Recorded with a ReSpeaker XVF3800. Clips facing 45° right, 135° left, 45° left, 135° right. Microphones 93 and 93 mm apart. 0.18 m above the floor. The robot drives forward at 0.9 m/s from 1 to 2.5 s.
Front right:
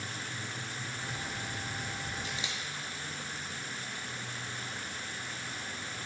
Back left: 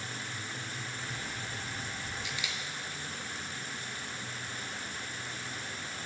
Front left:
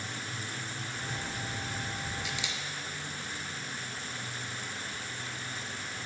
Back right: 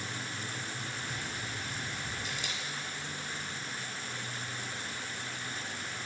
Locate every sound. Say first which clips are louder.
2.2 s a camera shutter: even, front left 1 dB; 90° right, 1.1 m; by 2.6 s 105° right, 1.2 m